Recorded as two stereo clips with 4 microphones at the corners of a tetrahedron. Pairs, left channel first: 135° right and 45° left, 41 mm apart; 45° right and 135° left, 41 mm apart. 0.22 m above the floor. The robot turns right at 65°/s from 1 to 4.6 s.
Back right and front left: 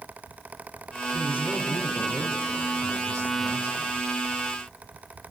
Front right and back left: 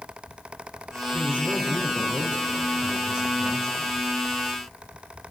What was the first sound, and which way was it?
A man speaking, 70° left.